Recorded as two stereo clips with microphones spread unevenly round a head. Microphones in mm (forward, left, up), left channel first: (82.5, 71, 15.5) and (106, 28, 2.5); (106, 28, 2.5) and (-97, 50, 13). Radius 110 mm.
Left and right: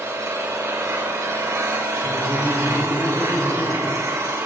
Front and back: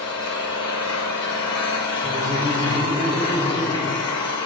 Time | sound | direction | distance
0.0 | an engine running | 75° right | 1.8 m
2.0 | laughter | 95° left | 3.5 m